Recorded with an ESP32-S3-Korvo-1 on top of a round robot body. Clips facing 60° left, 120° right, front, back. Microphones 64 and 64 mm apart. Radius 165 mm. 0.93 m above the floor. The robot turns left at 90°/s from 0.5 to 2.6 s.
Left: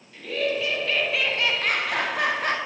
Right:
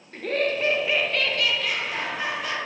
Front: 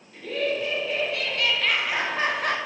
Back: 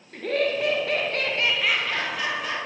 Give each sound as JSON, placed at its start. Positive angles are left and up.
{"t": 0.1, "sound": "laughter", "azimuth_deg": -160, "distance_m": 1.3}